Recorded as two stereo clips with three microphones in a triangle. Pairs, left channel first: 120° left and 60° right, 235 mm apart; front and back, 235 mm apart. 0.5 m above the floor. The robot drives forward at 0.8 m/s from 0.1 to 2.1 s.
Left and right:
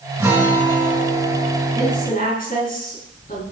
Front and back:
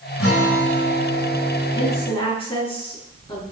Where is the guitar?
20° left, 6 m; by 2.1 s 30° left, 4.5 m.